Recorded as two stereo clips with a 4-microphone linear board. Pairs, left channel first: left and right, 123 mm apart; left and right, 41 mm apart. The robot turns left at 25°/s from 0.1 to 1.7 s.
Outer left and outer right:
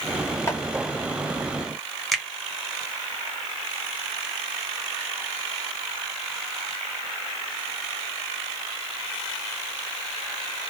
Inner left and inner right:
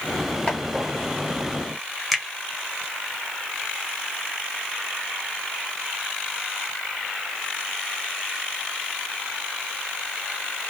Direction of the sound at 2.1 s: Centre (ahead or behind).